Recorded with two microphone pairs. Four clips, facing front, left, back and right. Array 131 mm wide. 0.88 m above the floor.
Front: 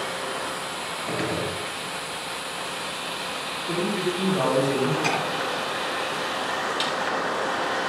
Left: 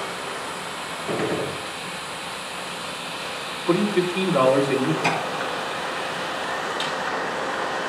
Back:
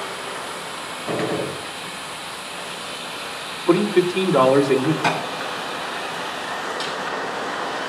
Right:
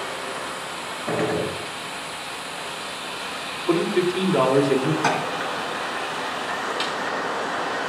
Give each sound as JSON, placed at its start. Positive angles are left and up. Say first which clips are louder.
{"t": 1.1, "sound": "a gunshot", "louder": "right 2 dB, back 5 dB", "azimuth_deg": -110, "distance_m": 7.0}
{"t": 3.7, "sound": "a man speaking", "louder": "even, back 10 dB", "azimuth_deg": -170, "distance_m": 2.5}
{"t": 5.0, "sound": "tapping", "louder": "right 2 dB, back 4 dB", "azimuth_deg": -125, "distance_m": 6.0}
{"t": 6.8, "sound": "a snare drum", "louder": "even, front 1 dB", "azimuth_deg": -80, "distance_m": 5.0}